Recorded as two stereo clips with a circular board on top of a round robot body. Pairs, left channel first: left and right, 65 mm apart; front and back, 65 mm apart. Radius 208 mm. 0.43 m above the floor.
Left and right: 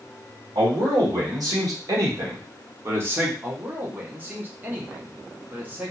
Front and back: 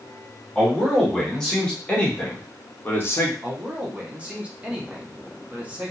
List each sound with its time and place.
0.6 s a man speaking: 85° right, 2.0 m; by 3.3 s 40° right, 1.2 m
3.4 s a man speaking: 125° right, 1.2 m